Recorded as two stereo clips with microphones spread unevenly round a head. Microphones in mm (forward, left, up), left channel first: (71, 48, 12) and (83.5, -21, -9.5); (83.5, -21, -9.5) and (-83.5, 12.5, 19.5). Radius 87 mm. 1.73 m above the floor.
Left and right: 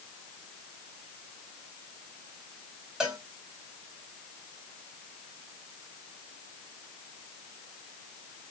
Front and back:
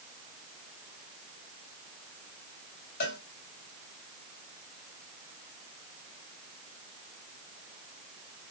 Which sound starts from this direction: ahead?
A cowbell, at 3.0 s.